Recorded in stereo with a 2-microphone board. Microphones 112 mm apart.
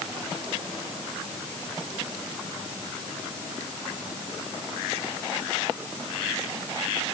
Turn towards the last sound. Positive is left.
No sound to turn to.